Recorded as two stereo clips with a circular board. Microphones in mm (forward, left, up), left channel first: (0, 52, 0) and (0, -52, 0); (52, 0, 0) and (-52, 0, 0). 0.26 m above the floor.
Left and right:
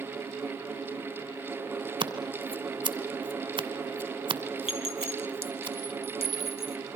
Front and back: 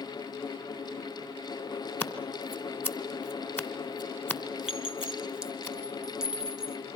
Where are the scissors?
65° right, 2 m.